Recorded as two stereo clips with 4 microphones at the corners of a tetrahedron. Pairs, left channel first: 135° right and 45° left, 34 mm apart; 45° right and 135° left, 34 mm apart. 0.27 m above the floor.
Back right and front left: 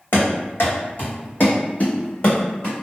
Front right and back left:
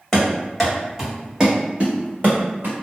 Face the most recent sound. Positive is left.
turn(degrees=165)